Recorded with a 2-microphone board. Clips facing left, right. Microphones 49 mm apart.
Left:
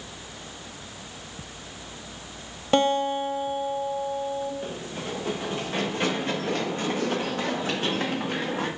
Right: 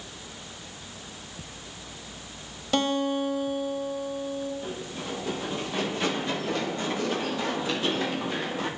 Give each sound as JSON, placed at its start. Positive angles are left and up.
{"t": 2.7, "sound": "a guitar", "side_deg": 30, "distance_m": 1.3}
{"t": 4.6, "sound": "running footsteps", "side_deg": 45, "distance_m": 6.0}